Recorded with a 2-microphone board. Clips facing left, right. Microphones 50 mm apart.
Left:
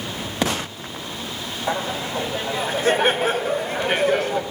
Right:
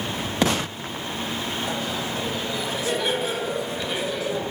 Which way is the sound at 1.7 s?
35° left (ahead or behind).